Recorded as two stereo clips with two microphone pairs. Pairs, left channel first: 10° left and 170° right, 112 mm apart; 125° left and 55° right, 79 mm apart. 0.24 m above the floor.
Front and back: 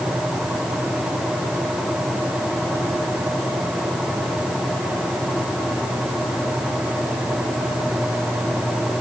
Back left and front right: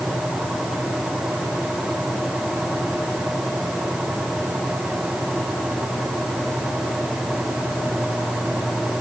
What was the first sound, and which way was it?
Only background noise.